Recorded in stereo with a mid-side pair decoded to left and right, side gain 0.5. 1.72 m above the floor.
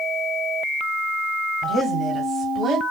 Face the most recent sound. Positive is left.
turn(degrees=-50)